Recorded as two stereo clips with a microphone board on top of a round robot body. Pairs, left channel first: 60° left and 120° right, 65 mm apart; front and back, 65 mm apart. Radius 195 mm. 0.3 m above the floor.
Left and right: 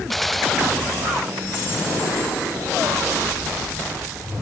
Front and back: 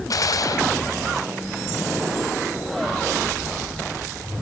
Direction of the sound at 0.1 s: 30° right.